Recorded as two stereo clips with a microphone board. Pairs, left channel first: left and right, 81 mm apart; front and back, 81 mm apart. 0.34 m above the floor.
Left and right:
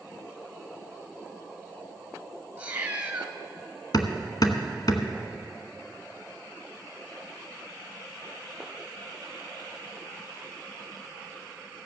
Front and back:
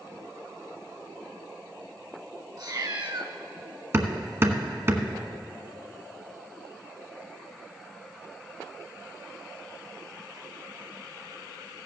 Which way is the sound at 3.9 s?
120° left.